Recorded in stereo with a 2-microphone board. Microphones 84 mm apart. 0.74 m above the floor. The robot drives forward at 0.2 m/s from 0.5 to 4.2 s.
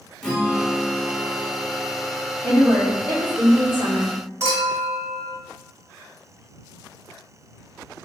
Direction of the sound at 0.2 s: 10° left (ahead or behind).